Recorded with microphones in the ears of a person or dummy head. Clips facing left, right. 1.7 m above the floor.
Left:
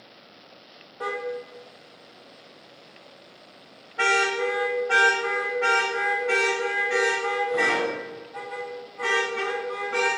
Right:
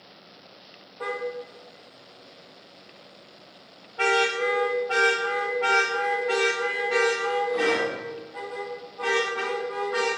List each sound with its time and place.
1.0 s a car horn: 15° left (ahead or behind), 3 m; by 10.1 s 35° left (ahead or behind), 8.5 m